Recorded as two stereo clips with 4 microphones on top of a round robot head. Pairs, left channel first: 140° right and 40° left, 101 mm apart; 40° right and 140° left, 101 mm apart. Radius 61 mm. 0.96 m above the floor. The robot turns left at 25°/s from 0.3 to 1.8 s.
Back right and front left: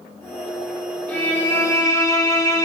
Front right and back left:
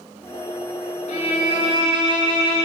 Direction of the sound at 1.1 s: 60° right.